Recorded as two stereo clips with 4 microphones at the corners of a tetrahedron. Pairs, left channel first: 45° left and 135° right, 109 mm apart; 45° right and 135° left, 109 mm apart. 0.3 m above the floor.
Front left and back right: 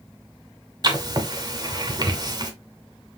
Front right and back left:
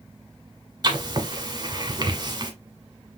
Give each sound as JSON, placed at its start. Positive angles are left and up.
{"t": 0.8, "sound": "writing", "azimuth_deg": 180, "distance_m": 1.2}